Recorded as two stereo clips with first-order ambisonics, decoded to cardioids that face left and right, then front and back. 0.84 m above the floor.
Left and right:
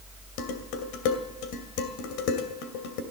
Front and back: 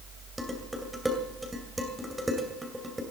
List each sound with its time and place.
0.4 s dishes clattering: 95° left, 2.5 m